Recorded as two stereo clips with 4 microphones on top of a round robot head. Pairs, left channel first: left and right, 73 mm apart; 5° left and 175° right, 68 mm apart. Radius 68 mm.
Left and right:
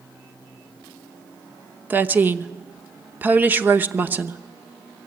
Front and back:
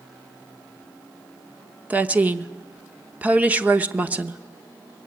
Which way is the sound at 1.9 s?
130° right.